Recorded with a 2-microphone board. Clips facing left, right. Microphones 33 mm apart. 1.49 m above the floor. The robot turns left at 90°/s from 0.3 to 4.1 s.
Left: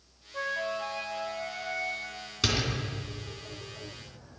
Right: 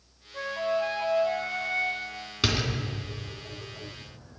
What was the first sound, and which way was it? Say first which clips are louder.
A flute: right 4 dB; 25° left.